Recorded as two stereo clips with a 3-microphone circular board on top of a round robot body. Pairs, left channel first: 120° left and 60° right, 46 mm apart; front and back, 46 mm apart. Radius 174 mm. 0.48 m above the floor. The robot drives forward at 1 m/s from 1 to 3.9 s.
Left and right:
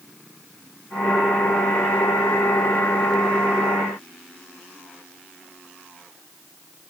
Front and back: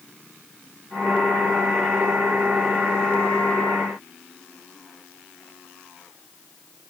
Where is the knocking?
No knocking in this recording.